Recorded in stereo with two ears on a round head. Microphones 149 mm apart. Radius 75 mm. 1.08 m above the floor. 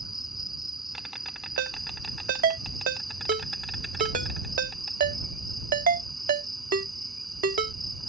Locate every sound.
0.0 s an insect: centre (ahead or behind)
1.6 s a ringtone: 60° right (ahead or behind)